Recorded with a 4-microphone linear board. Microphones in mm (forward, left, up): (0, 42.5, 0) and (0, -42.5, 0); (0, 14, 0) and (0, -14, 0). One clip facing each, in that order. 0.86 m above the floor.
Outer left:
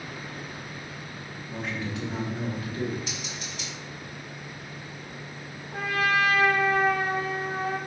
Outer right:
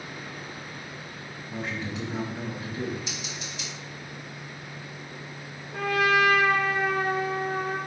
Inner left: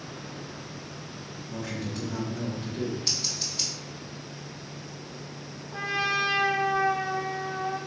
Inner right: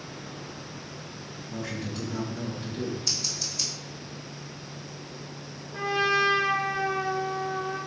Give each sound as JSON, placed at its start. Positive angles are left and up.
{"t": 1.5, "sound": "a man speaking", "side_deg": -5, "distance_m": 2.0}
{"t": 3.1, "sound": "scissors", "side_deg": 45, "distance_m": 2.0}
{"t": 5.7, "sound": "a trumpet", "side_deg": 45, "distance_m": 1.6}